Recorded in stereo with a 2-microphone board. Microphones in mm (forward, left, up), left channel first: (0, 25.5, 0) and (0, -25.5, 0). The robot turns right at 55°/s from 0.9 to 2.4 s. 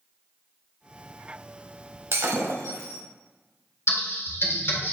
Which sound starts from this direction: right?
Breaking glass, at 2.1 s.